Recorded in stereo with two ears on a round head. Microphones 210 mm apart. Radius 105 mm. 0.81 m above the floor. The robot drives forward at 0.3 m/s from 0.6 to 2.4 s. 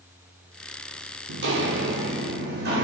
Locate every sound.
1.3 s footsteps: 50° right (ahead or behind), 1.1 m; by 2.8 s 45° right (ahead or behind), 3 m